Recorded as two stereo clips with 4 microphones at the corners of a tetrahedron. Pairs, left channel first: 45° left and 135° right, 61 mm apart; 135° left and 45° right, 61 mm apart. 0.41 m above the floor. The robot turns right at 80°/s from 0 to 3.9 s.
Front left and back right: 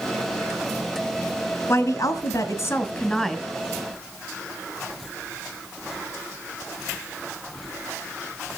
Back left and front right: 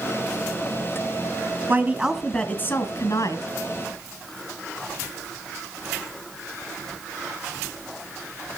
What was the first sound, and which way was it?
A woman speaking, 10° left.